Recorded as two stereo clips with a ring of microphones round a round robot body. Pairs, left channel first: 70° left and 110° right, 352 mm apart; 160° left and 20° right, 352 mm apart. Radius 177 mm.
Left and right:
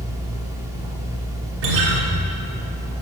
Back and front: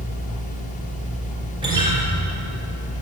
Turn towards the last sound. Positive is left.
turn(degrees=-100)